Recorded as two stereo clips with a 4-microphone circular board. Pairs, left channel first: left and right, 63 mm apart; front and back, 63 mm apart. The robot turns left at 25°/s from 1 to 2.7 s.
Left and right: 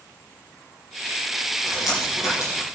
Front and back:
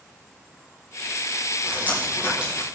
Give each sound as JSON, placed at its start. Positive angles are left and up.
{"t": 1.6, "sound": "dripping", "azimuth_deg": 125, "distance_m": 6.0}